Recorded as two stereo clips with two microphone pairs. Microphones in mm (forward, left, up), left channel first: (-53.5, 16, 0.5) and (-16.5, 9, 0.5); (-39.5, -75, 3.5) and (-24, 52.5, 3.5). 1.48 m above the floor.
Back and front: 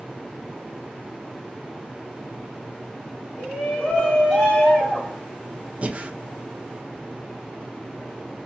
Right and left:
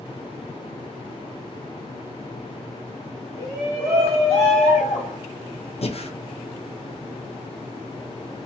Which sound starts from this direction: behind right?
A shout, at 3.4 s.